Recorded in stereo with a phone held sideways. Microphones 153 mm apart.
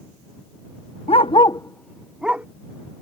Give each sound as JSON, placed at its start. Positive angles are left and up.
{"t": 1.1, "sound": "a dog barking", "side_deg": 40}